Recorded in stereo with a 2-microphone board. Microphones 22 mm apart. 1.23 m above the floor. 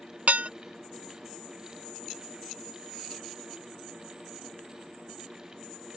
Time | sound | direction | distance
0.3 | dishes clattering | 65° right (ahead or behind) | ?